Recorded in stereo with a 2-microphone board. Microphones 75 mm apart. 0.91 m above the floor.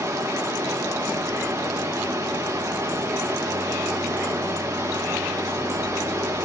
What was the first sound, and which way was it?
Running water, 40° right (ahead or behind).